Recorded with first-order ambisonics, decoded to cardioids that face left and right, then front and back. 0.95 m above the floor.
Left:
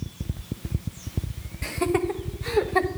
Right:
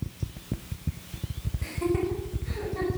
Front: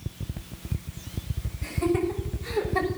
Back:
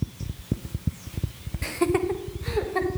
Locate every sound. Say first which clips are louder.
1.6 s laughter: left 4 dB, back 2 dB; 150° left, 1.1 m; by 2.9 s 90° left, 1.3 m